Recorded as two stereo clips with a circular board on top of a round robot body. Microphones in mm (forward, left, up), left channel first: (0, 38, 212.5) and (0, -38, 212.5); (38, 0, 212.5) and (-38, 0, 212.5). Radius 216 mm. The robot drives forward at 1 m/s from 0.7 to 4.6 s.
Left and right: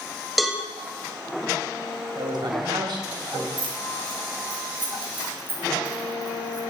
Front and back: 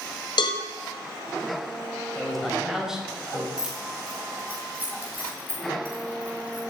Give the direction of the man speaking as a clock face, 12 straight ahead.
3 o'clock.